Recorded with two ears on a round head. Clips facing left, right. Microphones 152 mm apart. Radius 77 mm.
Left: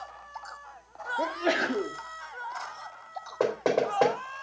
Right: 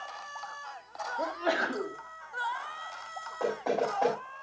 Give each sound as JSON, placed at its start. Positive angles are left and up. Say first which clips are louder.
{"t": 1.2, "sound": "a sneeze", "louder": "left 3 dB", "side_deg": 25, "distance_m": 1.6}
{"t": 3.4, "sound": "knocking", "louder": "left 4 dB", "side_deg": 80, "distance_m": 3.5}